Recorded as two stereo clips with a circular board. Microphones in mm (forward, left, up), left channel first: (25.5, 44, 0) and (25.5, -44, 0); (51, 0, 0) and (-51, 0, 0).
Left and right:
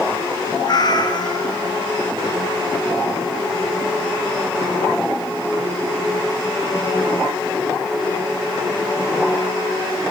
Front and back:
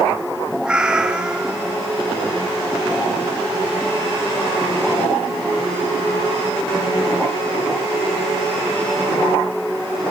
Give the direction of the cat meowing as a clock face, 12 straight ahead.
9 o'clock.